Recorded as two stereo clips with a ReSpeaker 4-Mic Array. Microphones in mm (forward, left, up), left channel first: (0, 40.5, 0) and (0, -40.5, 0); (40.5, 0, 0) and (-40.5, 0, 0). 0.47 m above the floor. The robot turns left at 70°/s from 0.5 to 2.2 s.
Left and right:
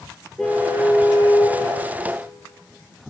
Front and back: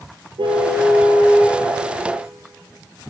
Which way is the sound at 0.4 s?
170° left.